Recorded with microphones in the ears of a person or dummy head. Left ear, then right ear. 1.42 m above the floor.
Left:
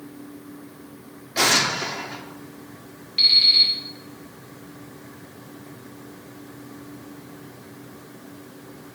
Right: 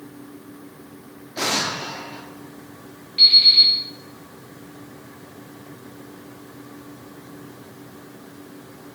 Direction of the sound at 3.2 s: 20° left (ahead or behind).